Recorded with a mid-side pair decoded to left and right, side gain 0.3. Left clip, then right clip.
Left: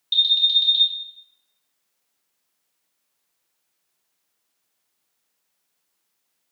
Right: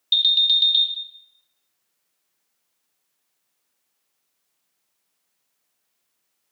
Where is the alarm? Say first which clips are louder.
Even; 45° right, 0.5 m.